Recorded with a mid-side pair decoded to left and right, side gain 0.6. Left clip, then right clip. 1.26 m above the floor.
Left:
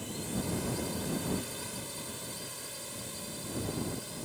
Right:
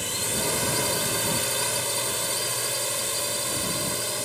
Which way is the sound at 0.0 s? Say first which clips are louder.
Right 11 dB; 60° right.